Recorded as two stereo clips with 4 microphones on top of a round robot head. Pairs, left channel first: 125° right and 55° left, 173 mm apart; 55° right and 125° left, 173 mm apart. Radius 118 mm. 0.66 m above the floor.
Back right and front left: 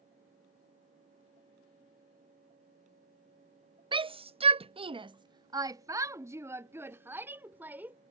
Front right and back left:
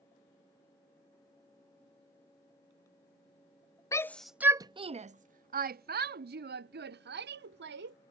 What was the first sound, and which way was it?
A shout, 10° left.